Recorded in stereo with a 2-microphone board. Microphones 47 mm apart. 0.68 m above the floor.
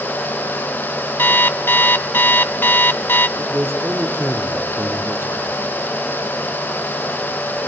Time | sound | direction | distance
1.2 | an alarm clock | 50° left (ahead or behind) | 0.8 m
3.4 | a man speaking | 50° right (ahead or behind) | 2 m